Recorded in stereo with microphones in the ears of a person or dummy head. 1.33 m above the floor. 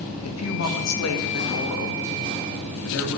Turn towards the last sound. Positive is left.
turn(degrees=75)  # may be behind; listen again after turning